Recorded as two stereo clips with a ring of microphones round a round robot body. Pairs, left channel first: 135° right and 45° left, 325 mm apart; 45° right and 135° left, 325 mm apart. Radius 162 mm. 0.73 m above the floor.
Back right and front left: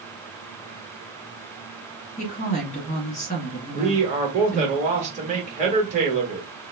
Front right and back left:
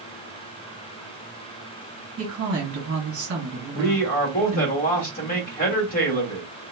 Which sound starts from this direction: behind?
A woman speaking, at 2.2 s.